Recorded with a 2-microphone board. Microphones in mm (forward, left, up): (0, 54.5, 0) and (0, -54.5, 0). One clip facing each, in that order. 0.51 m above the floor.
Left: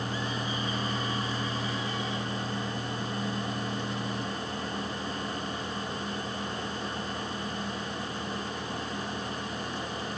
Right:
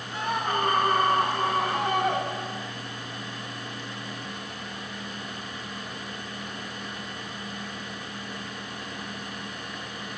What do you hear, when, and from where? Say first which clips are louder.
0.1 s a scream: right 6 dB; 80° right; by 2.7 s 65° right (ahead or behind)